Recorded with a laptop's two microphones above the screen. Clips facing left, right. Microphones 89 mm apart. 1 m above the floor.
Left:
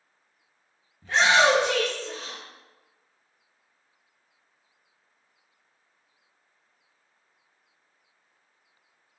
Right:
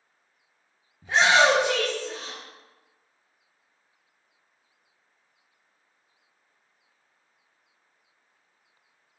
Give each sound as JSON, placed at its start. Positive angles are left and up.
{"t": 1.0, "sound": "a shout", "side_deg": -15, "distance_m": 0.5}